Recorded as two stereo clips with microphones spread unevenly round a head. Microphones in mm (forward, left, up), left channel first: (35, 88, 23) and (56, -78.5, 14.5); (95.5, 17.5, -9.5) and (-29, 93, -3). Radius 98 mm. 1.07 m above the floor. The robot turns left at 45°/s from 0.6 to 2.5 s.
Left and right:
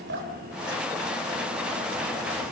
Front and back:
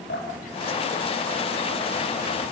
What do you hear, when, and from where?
0.1 s dripping: 75° right, 4 m; by 1.9 s 130° right, 4 m